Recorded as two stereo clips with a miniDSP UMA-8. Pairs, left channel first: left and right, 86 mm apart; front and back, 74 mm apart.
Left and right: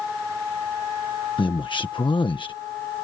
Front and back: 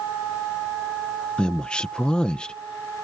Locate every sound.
1.4 s a man speaking: 75° left